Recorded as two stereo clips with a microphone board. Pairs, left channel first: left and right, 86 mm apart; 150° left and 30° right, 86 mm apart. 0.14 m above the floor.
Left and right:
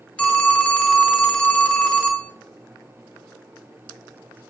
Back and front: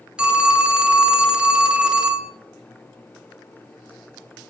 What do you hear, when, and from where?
0.2 s a phone ringing: 35° left, 0.6 m